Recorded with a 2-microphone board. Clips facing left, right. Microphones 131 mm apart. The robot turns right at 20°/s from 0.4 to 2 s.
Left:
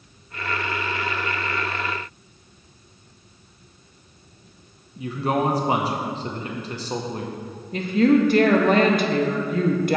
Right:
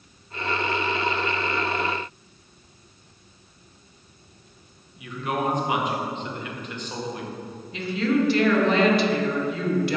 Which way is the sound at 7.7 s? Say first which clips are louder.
Left 6 dB; 45° left (ahead or behind).